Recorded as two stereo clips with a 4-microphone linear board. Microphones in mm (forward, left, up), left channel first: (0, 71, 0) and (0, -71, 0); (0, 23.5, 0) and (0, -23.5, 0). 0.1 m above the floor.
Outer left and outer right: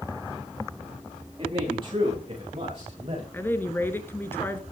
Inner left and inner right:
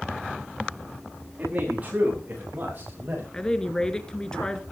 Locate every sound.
1.4 s a man speaking: 40° right (ahead or behind), 10 m; by 3.2 s 45° right (ahead or behind), 11 m
3.3 s a woman speaking: 15° left (ahead or behind), 1.5 m